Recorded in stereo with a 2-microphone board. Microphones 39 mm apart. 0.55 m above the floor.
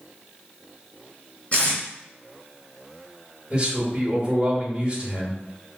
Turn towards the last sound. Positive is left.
turn(degrees=-20)  # may be behind; listen again after turning